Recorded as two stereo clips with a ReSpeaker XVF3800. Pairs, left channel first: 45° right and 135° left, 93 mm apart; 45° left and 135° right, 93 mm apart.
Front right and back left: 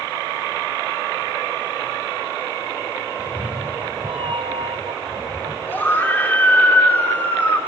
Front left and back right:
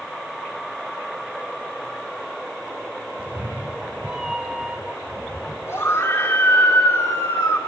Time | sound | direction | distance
3.2 | a cat meowing | 160° left | 1.0 m
5.7 | a scream | 10° left | 1.5 m